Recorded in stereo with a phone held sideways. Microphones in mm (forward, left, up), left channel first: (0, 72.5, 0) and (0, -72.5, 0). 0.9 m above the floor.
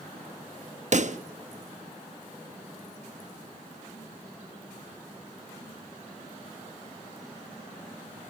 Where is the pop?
55° right (ahead or behind), 1.1 m.